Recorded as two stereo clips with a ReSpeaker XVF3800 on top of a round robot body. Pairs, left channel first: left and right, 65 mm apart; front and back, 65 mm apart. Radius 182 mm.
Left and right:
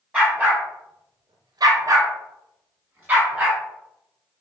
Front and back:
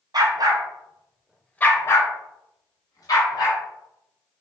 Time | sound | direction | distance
0.1 | a dog barking | 160° right | 1.0 m